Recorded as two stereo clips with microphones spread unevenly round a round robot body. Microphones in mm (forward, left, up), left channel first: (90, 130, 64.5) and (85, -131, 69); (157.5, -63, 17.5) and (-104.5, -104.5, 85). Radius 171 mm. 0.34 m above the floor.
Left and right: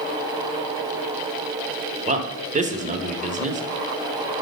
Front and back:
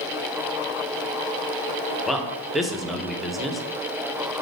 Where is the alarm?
I don't hear an alarm.